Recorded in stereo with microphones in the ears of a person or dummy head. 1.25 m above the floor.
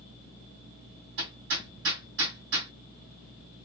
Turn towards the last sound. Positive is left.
turn(degrees=-65)  # may be behind; listen again after turning